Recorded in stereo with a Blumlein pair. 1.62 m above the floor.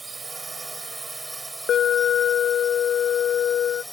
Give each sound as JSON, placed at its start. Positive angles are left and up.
{"t": 0.0, "sound": "a drone", "azimuth_deg": -10}
{"t": 1.7, "sound": "an alarm", "azimuth_deg": 25}